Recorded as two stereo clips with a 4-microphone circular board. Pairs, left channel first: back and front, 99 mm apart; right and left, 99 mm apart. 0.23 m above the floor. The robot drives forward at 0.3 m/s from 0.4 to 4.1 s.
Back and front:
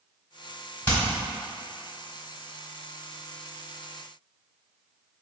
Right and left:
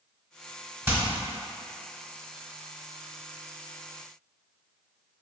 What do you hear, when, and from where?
0.9 s hammering: 125° left, 1.4 m; by 1.0 s 130° left, 1.4 m